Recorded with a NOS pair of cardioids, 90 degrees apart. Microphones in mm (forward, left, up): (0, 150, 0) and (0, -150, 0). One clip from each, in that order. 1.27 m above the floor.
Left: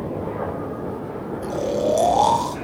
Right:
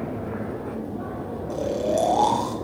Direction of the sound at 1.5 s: 20° left.